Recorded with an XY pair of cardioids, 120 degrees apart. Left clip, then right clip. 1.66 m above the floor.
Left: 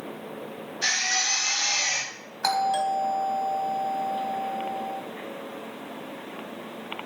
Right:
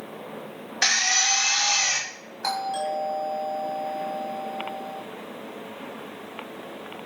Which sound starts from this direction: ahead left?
A doorbell, at 2.4 s.